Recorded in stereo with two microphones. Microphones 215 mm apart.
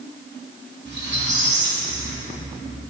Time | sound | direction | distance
0.8 | a squeak | 55° right (ahead or behind) | 2 m